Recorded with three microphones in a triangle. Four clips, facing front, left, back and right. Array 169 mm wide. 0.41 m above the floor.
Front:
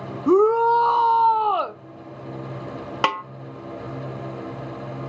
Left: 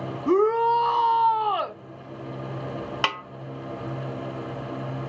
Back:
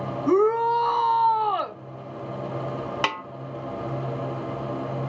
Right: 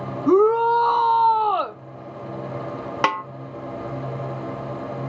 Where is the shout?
45° right, 0.9 m.